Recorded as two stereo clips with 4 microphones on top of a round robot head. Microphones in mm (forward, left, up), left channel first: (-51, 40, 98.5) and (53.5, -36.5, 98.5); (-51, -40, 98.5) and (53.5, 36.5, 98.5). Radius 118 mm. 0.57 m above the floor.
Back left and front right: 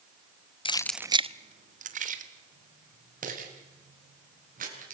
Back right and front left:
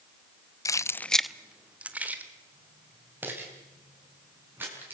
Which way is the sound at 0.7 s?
165° left.